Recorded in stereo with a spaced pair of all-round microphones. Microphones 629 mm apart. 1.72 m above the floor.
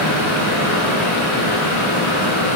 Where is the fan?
50° left (ahead or behind), 1.9 m.